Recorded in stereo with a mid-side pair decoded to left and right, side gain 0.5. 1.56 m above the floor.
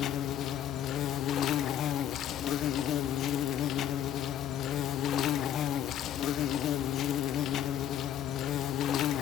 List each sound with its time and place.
0.0 s an insect: 65° left, 0.9 m